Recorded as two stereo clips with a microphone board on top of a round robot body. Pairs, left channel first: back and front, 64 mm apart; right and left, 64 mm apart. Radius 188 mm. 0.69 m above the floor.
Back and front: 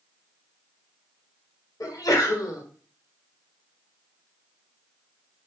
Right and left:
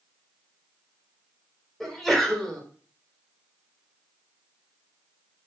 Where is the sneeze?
175° right, 2 m.